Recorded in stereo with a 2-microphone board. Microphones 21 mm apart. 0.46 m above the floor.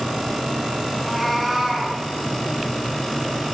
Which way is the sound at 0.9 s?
5° right (ahead or behind).